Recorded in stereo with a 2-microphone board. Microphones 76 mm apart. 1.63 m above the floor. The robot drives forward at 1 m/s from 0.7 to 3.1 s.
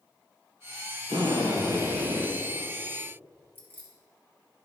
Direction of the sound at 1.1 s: 75° right (ahead or behind).